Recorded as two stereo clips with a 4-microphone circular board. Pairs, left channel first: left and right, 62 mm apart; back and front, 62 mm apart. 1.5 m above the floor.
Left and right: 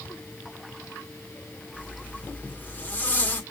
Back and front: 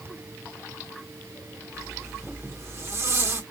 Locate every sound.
1.7 s a zipper: 35° left, 1.5 m